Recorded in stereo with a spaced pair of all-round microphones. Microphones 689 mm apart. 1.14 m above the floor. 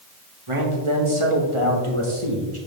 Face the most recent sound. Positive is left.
turn(degrees=-45)  # may be behind; listen again after turning